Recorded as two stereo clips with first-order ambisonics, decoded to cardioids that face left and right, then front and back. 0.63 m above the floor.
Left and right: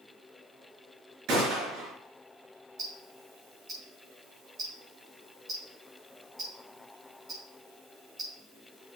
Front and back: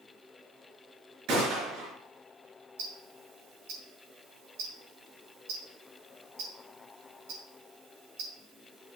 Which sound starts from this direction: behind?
Ticking, at 2.8 s.